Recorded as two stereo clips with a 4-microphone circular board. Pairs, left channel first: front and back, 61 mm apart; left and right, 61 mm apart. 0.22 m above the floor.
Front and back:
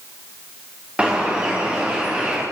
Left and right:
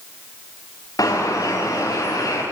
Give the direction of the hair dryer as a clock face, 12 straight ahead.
I don't hear a hair dryer.